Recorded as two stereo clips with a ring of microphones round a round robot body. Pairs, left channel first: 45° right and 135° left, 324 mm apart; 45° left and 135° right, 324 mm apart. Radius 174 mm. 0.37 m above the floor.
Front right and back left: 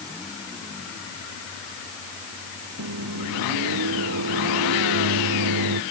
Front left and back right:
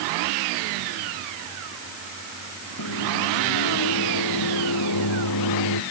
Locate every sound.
2.8 s a microwave: 85° left